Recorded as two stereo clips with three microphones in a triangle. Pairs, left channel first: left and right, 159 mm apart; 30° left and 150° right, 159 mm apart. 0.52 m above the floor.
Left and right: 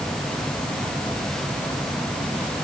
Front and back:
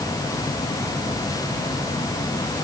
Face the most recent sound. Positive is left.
No sound to turn to.